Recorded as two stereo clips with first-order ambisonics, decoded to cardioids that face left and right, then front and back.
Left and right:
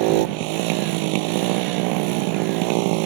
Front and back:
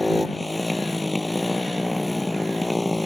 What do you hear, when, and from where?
0.0 s a motorcycle: 85° right